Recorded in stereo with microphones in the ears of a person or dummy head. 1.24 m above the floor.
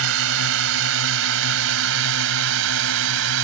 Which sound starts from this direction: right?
A drone, at 0.0 s.